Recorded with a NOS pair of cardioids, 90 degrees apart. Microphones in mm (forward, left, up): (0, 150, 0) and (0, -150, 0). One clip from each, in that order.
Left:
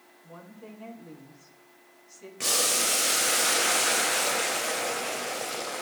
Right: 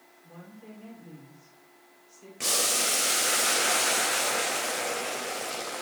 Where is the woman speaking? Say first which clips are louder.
Left 3 dB; 45° left, 4 m.